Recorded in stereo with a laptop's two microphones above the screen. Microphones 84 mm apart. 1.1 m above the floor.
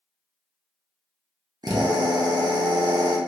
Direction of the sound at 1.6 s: 50° right (ahead or behind).